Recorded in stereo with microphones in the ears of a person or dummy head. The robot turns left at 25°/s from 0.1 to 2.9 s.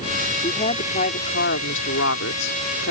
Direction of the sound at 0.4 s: 155° left.